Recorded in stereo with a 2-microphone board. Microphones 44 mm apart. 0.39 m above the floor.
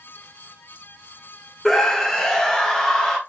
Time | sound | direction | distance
1.6 | a scream | 5° left (ahead or behind) | 1.1 m